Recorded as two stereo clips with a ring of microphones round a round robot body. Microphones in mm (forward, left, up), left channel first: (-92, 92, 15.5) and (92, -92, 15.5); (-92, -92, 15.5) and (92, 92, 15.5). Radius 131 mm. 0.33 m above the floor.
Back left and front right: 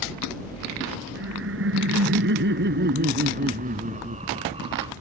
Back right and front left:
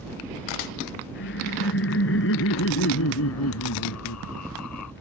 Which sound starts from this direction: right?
Laughter, at 1.1 s.